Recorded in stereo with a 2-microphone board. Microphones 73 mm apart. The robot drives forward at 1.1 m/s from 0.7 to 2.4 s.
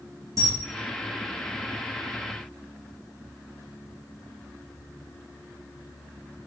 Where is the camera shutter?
45° right (ahead or behind), 2 m.